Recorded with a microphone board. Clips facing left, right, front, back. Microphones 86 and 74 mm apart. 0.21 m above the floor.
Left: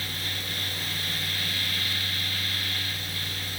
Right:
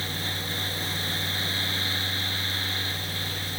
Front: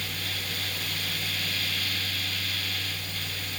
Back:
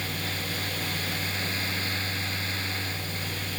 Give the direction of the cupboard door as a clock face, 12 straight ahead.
No cupboard door in this recording.